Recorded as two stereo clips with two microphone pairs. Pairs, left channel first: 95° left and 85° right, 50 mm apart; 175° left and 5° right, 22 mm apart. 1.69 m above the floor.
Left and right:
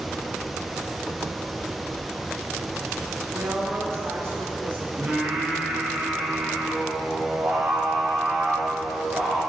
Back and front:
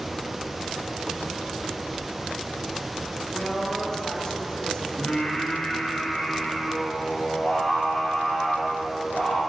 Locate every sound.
3.3 s a woman speaking: 110° right, 3 m; by 4.9 s 130° right, 3 m
5.0 s singing: 150° right, 4 m